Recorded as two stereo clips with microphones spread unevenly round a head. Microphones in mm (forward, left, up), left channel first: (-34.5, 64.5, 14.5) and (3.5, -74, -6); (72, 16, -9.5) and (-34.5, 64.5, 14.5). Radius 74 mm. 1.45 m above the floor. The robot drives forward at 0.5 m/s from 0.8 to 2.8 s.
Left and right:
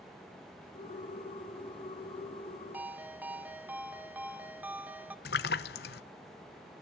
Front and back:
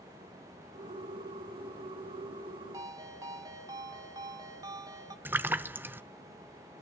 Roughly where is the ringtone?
Behind right.